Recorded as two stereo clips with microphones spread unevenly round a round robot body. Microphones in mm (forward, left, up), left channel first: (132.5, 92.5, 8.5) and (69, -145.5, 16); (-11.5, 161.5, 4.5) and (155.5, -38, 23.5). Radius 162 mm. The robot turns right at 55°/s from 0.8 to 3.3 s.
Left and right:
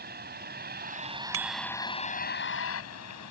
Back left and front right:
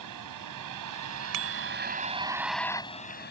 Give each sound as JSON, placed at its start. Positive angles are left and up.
{"t": 0.0, "sound": "a vehicle", "azimuth_deg": -55}
{"t": 1.3, "sound": "a bicycle bell", "azimuth_deg": -75}